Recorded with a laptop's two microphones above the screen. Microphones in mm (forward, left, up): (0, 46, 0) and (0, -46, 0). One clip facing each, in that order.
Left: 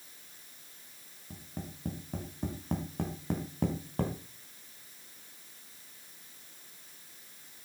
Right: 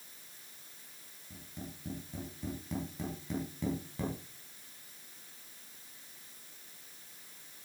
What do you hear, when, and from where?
1.3 s tapping: 55° left (ahead or behind), 3.5 m